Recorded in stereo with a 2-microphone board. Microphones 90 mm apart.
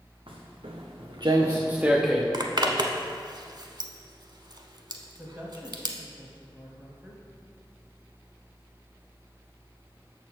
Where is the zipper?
50° right (ahead or behind), 0.7 m.